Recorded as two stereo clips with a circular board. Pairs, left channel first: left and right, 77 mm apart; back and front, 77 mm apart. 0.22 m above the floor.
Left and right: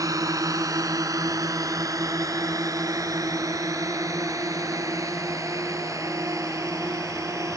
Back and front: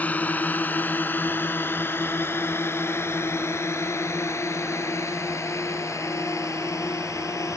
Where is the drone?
115° right; by 7.6 s 135° right.